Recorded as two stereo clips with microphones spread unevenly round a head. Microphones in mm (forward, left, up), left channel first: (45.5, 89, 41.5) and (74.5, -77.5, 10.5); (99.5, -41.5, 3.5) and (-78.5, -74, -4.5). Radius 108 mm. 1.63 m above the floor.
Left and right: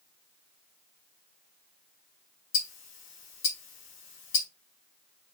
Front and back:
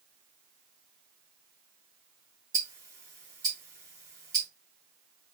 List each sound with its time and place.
2.5 s ticking: 115° left, 2.5 m